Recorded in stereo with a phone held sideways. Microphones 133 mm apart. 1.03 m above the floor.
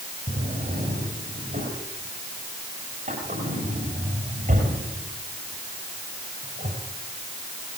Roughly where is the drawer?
Right.